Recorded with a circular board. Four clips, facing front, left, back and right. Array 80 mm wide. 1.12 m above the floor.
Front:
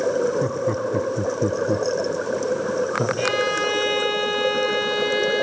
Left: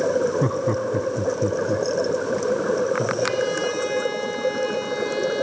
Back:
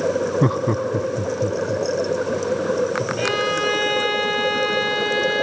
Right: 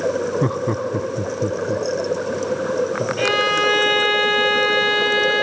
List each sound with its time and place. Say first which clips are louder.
0.4 s laughter: right 1 dB, back 3 dB; 160° right, 0.6 m; by 3.1 s straight ahead, 1.7 m
3.2 s a violin: right 4 dB, back 1 dB; 95° right, 2.0 m